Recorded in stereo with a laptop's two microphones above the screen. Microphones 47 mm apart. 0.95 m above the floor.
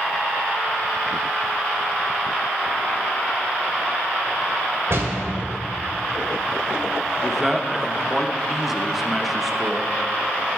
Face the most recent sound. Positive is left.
turn(degrees=-5)  # may be behind; listen again after turning